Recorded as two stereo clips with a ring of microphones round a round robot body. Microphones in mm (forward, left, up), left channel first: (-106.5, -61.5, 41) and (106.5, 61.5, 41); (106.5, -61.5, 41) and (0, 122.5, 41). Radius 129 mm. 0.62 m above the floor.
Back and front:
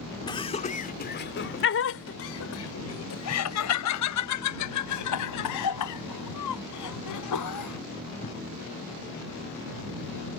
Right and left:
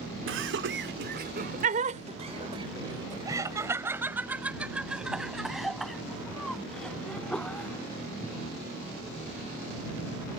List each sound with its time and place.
0.3 s laughter: 140° left; by 8.3 s 145° right